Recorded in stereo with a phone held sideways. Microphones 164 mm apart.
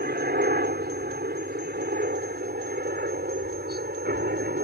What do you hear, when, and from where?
0.0 s a helicopter: 70° right (ahead or behind)